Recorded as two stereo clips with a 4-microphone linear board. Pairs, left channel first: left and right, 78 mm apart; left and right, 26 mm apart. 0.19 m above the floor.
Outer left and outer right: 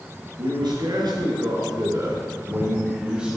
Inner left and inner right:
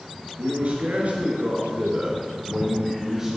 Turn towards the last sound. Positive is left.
turn(degrees=-10)  # may be behind; listen again after turning